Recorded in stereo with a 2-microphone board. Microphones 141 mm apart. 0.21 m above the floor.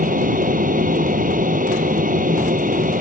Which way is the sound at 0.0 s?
75° right (ahead or behind).